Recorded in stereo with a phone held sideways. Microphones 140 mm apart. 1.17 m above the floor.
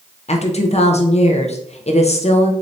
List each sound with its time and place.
0.3 s a woman speaking: 50° left (ahead or behind), 0.6 m